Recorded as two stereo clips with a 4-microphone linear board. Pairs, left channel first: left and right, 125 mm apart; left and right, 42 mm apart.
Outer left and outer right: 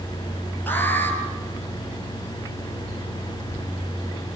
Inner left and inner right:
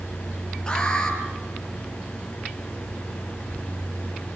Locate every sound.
0.7 s an alarm: 15° left (ahead or behind), 5 m